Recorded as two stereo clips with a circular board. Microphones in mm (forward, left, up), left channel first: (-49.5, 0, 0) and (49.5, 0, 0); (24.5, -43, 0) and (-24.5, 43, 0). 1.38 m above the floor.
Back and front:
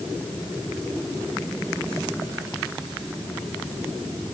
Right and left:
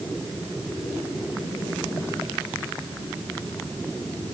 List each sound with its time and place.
Only background noise.